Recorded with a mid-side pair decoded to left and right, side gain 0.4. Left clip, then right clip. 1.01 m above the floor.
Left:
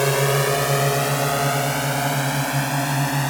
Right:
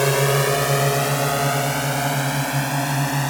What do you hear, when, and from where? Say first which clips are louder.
0.0 s a drone: right 1 dB; 10° right; by 3.3 s straight ahead